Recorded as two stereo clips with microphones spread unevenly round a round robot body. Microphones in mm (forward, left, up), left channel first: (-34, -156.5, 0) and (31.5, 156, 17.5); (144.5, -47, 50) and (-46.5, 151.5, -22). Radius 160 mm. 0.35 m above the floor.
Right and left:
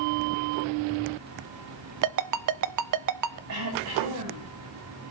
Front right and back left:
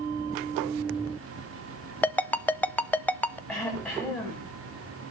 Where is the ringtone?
45° left, 0.8 m.